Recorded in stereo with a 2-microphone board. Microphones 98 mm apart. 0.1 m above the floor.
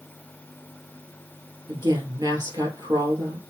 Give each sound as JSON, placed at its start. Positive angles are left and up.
{"t": 1.7, "sound": "a woman speaking", "side_deg": -50, "distance_m": 2.5}